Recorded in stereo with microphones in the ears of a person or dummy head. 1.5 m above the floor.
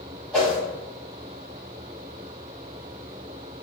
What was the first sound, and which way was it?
A whoosh, 5° left (ahead or behind).